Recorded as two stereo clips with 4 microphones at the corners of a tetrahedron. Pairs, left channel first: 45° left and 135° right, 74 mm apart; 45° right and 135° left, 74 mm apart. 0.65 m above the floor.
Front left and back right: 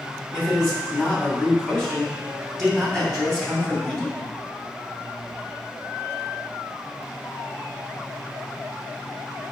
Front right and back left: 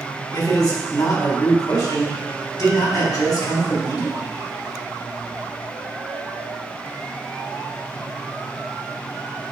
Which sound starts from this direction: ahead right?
A man speaking, at 0.3 s.